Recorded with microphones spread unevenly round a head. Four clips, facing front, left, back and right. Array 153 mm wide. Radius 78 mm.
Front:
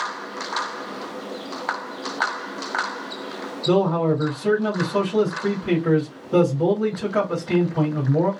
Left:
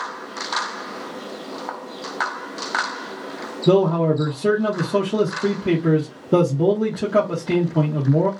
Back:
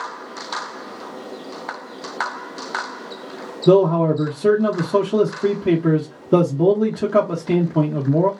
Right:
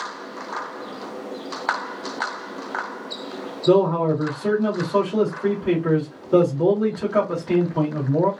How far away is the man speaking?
About 0.8 m.